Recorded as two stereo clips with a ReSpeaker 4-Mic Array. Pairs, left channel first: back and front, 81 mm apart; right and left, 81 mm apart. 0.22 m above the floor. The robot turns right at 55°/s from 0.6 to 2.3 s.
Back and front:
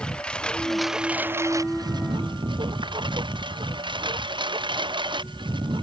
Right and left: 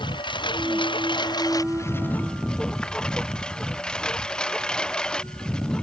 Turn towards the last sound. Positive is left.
turn(degrees=-10)